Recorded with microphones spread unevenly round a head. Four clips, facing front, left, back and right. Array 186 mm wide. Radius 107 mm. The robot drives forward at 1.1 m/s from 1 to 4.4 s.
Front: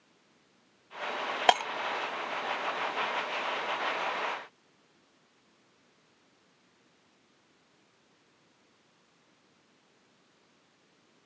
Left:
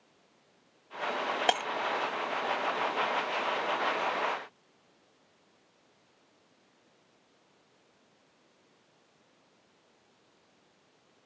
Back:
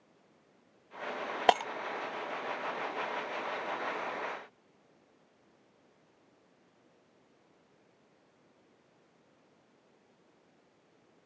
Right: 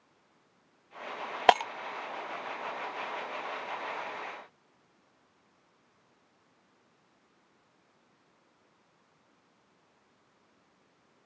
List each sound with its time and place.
1.5 s breaking glass: 105° right; by 1.7 s 130° right